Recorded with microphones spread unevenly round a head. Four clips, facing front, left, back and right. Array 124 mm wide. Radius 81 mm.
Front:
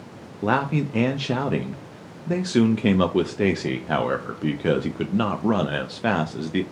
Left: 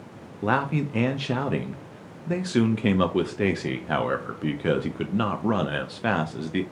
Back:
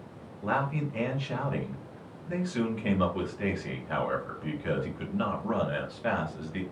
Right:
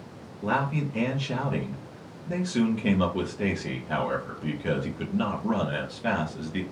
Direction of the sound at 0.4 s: 25° left.